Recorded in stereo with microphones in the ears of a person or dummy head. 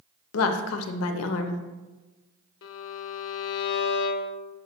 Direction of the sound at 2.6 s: 70° left (ahead or behind).